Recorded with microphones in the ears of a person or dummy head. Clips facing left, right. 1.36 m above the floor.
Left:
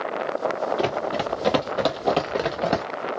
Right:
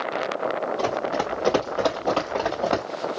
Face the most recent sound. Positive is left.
turn(degrees=25)  # may be behind; listen again after turning